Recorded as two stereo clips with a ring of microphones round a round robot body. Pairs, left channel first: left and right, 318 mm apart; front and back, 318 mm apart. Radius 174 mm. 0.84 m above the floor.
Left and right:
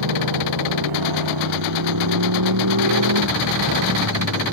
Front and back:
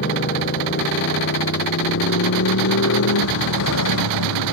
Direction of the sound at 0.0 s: 60° right.